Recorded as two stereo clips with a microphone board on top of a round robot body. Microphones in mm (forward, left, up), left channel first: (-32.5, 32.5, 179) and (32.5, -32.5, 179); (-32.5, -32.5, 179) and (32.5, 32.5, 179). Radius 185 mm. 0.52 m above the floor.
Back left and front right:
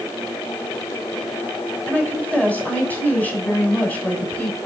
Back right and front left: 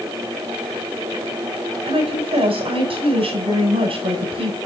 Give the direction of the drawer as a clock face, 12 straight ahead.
No drawer in this recording.